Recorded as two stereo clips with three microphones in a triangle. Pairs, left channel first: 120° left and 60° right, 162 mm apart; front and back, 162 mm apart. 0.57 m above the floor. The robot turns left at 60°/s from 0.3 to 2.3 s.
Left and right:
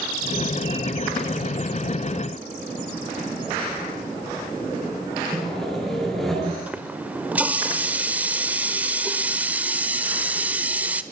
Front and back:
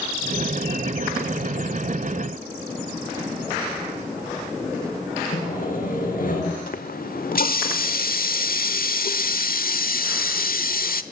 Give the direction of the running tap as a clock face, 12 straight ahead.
11 o'clock.